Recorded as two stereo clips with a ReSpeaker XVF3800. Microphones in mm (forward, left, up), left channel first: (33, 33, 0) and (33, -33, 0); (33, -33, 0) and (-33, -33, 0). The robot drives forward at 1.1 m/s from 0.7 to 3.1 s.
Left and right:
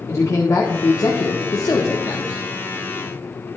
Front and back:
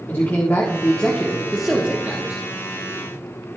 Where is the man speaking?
55° left, 1.4 m; by 2.4 s 135° left, 1.6 m.